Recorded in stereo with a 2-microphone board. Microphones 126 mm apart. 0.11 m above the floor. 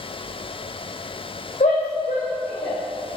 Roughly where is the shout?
Left.